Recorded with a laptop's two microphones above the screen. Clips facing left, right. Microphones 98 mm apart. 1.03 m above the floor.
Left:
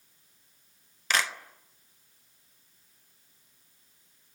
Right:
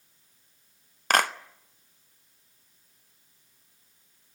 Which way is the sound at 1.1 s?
50° right (ahead or behind).